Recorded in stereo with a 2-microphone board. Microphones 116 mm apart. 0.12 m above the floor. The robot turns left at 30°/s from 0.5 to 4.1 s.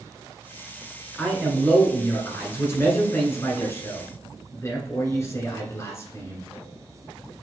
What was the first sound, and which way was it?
A man speaking, 10° left (ahead or behind).